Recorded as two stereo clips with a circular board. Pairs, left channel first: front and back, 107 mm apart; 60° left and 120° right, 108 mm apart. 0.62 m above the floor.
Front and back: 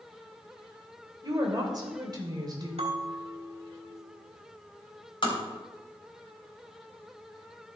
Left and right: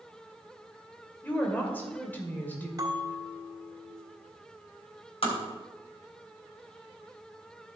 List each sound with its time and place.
1.2 s a woman speaking: 130° left, 2.0 m
2.8 s a bell: 175° right, 1.5 m
5.2 s tapping: 40° left, 3 m